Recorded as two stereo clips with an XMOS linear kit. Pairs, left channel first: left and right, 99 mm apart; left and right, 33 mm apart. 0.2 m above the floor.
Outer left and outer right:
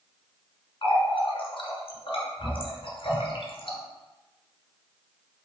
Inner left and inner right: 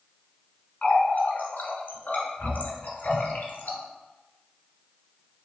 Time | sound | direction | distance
0.8 | a running tap | 60° left (ahead or behind) | 1.5 m